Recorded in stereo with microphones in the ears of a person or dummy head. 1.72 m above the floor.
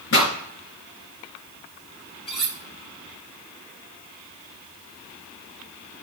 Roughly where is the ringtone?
I don't hear a ringtone.